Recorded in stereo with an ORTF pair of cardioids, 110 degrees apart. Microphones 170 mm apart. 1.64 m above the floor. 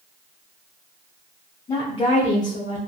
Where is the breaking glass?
No breaking glass in this recording.